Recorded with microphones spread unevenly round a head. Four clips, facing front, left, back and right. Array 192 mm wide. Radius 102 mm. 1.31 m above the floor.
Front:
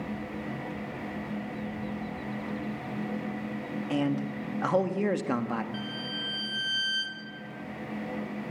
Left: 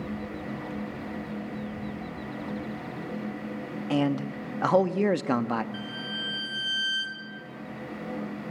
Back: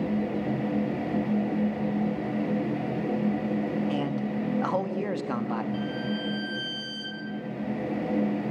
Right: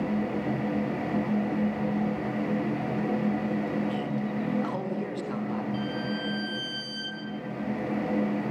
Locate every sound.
3.9 s a man speaking: 70° left, 1.8 m
5.7 s a violin: 50° left, 6 m